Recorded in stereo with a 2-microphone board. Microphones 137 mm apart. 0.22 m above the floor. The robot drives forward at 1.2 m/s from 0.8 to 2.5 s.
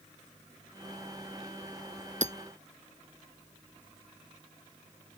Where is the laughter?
I don't hear laughter.